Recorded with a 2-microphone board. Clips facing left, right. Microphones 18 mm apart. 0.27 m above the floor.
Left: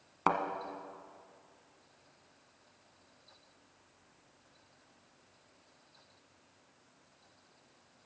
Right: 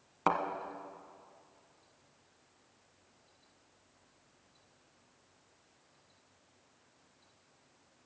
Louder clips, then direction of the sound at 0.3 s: Even; 5° left (ahead or behind).